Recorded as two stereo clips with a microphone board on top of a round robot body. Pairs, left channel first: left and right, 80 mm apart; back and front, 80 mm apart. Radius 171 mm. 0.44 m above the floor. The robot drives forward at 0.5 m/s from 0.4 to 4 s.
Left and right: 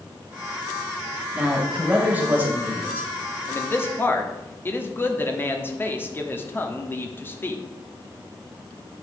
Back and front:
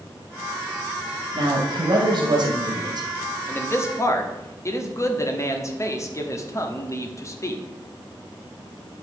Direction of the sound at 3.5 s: 130° left.